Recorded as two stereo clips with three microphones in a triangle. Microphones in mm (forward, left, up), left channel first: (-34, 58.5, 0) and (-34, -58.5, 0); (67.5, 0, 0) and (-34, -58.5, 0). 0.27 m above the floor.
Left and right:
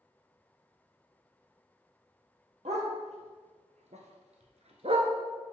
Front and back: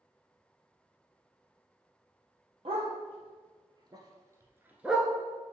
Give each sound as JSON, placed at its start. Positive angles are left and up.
{"t": 2.6, "sound": "a dog barking", "azimuth_deg": -115, "distance_m": 1.9}